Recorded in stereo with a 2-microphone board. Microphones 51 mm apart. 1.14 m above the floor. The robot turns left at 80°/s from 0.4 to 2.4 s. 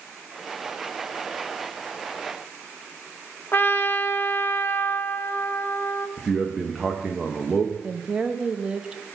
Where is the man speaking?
5° right (ahead or behind), 0.9 m.